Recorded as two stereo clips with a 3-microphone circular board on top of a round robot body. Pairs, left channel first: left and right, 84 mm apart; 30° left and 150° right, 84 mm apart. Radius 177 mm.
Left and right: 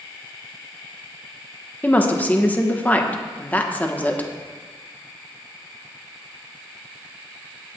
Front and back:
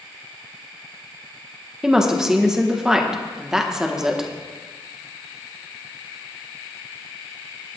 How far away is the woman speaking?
About 1.5 m.